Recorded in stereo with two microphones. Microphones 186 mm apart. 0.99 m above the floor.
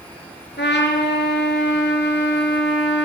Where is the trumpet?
80° left, 4 m.